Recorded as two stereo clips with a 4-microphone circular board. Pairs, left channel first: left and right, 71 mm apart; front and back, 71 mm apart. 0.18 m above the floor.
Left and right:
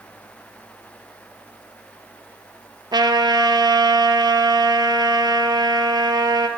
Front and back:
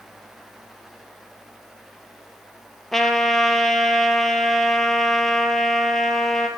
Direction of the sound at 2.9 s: 85° right.